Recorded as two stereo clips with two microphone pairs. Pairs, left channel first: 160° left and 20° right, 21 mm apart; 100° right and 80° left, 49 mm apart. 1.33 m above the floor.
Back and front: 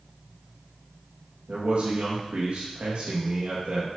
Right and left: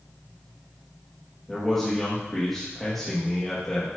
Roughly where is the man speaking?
Ahead.